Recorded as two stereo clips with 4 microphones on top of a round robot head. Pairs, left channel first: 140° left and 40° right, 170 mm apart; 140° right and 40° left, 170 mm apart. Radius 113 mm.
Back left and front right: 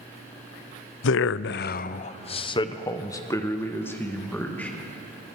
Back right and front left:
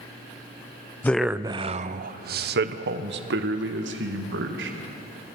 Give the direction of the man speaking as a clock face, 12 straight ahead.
7 o'clock.